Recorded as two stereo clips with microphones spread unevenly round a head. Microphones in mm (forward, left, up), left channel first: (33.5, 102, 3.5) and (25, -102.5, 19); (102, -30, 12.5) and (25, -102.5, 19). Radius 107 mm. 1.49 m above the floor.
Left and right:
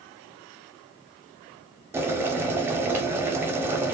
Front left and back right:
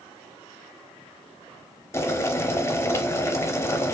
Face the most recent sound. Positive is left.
turn(degrees=-20)